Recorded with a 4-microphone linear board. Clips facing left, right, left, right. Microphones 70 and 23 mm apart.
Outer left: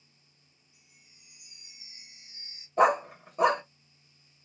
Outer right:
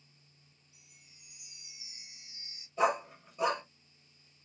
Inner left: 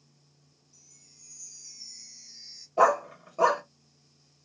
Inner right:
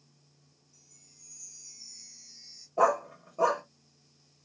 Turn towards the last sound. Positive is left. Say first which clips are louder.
# outer left 7 dB, inner left 3 dB
turn(degrees=50)  # may be behind; listen again after turning